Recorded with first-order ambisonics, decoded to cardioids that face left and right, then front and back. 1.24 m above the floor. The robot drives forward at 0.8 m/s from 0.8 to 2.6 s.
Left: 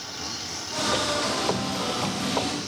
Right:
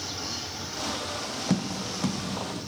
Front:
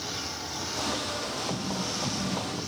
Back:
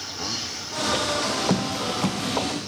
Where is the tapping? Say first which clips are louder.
Left 4 dB, back 6 dB; 140° right, 0.6 m; by 2.6 s 165° right, 1.4 m.